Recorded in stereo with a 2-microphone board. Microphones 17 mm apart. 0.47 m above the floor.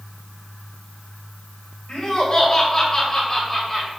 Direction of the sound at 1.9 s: 45° left (ahead or behind).